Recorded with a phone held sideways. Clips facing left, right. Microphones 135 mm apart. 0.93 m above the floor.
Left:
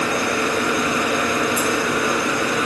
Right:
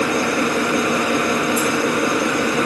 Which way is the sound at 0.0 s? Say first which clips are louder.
Right 3 dB; 65° right (ahead or behind).